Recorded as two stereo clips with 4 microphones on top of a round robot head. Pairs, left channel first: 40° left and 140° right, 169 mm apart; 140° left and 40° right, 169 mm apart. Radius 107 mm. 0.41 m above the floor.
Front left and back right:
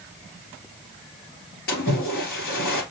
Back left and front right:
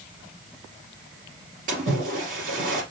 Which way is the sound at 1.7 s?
5° left.